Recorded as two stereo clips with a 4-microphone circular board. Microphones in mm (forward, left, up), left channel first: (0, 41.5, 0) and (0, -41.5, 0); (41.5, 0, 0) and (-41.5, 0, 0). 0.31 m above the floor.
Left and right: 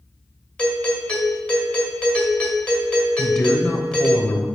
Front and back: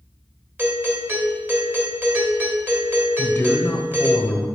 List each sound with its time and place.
0.6 s a doorbell: 150° left, 1.6 m
3.2 s a man speaking: 15° left, 1.1 m